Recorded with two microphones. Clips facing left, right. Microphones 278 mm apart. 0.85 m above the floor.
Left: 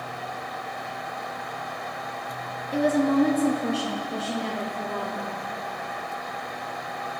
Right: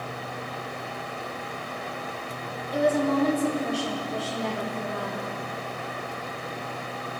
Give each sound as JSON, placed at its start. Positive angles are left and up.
{"t": 2.7, "sound": "a woman speaking", "side_deg": 30, "distance_m": 0.8}